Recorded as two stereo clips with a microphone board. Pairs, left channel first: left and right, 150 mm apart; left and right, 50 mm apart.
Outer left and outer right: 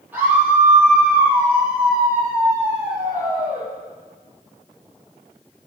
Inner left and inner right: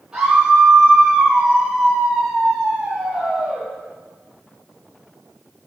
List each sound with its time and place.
0.1 s a scream: 10° right (ahead or behind), 6 m